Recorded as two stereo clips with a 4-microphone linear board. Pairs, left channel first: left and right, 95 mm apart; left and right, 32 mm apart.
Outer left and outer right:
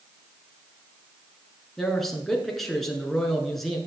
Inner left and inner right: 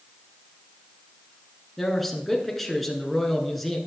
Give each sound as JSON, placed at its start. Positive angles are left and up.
{"t": 1.8, "sound": "a man speaking", "side_deg": 5, "distance_m": 1.9}